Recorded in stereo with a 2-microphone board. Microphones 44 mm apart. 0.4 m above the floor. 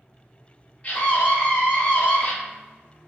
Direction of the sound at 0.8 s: 25° left (ahead or behind).